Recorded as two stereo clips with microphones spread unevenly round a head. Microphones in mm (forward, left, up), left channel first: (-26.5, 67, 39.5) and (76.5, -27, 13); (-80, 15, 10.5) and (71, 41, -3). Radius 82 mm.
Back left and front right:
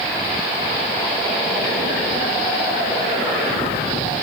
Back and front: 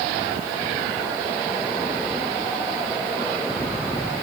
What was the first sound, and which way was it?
Only background noise.